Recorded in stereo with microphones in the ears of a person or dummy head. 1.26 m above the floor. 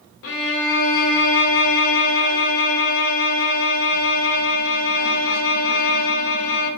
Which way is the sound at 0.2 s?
70° left (ahead or behind).